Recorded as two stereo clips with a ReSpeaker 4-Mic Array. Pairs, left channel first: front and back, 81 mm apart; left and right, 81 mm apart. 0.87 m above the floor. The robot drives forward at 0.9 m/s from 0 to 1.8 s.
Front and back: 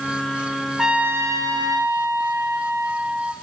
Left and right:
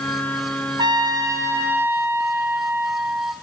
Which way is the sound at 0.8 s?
95° right.